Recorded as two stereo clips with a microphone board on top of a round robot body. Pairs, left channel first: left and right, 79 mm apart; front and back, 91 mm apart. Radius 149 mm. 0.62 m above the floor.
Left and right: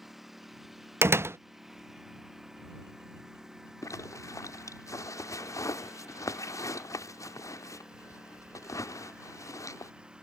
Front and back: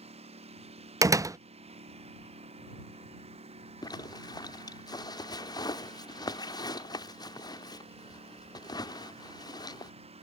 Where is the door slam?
135° right.